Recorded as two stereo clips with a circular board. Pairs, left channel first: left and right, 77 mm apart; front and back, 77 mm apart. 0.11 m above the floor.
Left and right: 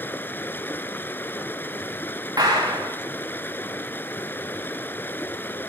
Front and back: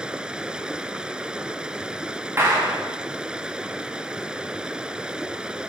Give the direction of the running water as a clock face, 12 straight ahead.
8 o'clock.